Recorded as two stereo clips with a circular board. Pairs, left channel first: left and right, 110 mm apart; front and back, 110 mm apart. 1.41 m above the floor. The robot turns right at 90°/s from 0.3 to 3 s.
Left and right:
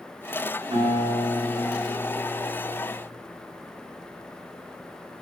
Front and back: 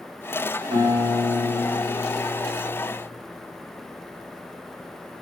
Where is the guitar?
135° right, 1.7 m; by 2.9 s 60° left, 1.7 m.